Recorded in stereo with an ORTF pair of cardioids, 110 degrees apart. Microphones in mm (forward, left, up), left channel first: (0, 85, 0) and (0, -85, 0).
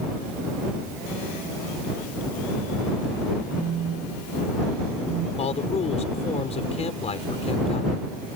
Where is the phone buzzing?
55° right.